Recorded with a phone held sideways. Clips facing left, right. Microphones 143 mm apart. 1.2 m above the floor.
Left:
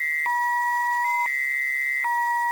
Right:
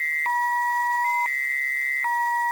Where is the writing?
I don't hear writing.